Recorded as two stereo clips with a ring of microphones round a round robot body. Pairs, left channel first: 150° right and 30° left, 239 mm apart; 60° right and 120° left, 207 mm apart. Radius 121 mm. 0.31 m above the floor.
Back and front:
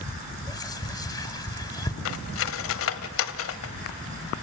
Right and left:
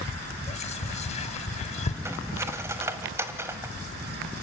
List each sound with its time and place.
0.5 s whispering: 85° right, 1.2 m
2.0 s cutlery clinking: 160° right, 1.0 m